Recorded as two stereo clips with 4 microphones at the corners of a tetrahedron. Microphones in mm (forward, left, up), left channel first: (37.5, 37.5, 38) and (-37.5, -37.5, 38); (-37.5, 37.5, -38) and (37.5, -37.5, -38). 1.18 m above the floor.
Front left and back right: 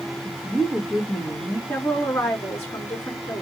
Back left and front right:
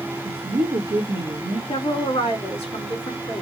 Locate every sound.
0.2 s a woman speaking: 40° right, 1.2 m
1.7 s a woman speaking: 115° left, 3 m